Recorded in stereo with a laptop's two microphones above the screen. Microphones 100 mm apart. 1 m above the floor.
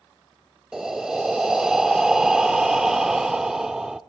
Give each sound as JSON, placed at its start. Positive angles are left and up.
{"t": 0.7, "sound": "breathing", "side_deg": -5, "distance_m": 0.7}